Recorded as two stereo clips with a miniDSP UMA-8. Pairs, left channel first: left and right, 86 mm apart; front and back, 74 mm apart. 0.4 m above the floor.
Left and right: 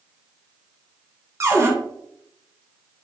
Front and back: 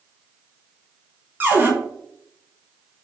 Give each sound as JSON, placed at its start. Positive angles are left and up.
{"t": 1.4, "sound": "a cupboard door", "azimuth_deg": -130, "distance_m": 0.8}